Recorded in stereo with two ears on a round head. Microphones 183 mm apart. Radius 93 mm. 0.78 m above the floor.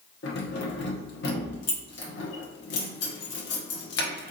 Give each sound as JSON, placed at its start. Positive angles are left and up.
{"t": 0.2, "sound": "keys jangling", "side_deg": 55, "distance_m": 0.8}